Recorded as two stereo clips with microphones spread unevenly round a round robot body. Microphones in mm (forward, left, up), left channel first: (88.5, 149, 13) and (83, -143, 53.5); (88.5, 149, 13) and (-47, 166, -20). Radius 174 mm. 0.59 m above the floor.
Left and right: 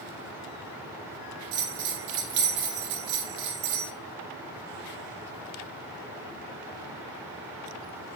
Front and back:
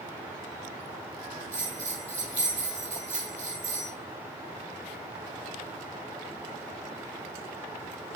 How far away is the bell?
About 1.5 m.